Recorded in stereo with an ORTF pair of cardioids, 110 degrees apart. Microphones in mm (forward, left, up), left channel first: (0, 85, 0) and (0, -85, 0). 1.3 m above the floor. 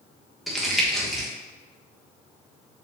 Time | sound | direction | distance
0.5 | crumpling | straight ahead | 1.3 m